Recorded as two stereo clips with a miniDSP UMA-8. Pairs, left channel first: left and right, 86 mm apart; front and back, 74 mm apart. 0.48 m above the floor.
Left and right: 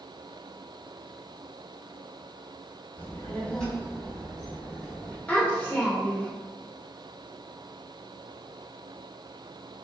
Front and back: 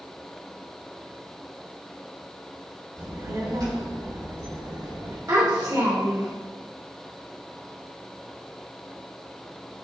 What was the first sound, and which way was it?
A child speaking, 155° left.